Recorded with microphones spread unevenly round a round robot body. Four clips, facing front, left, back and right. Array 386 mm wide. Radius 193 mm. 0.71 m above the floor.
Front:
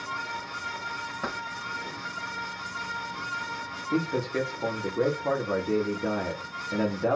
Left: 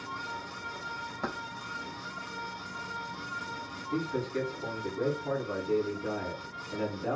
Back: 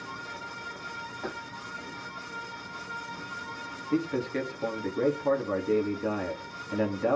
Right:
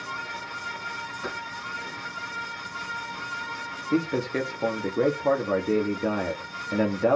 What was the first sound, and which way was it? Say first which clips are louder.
Keys jangling: even, front 3 dB; 35° left.